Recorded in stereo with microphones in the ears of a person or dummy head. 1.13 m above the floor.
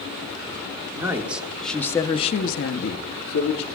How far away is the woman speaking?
About 1.3 m.